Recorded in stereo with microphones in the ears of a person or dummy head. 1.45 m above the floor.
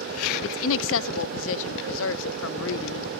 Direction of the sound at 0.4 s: 70° left (ahead or behind).